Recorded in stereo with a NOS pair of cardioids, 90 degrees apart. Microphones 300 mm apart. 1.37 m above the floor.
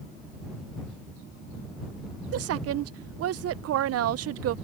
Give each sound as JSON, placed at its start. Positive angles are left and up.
{"t": 2.3, "sound": "a woman speaking", "azimuth_deg": -60}